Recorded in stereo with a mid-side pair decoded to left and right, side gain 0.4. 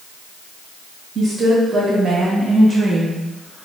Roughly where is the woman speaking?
Ahead right.